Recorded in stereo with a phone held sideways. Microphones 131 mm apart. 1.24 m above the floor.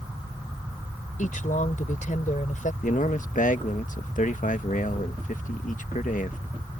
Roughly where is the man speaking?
Left.